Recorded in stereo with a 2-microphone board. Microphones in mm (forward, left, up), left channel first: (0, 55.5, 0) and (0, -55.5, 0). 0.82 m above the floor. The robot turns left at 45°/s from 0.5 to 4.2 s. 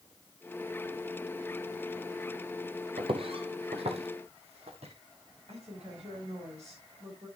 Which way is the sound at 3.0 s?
55° right (ahead or behind).